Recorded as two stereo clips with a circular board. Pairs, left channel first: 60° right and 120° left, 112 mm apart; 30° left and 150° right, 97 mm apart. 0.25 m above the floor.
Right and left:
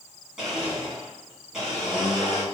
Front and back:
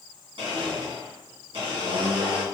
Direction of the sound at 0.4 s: 155° right.